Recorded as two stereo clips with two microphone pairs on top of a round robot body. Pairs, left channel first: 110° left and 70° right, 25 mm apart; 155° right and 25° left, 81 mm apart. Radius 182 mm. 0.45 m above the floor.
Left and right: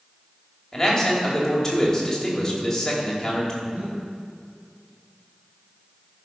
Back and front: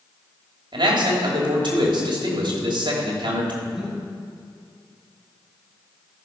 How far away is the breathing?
About 3.5 m.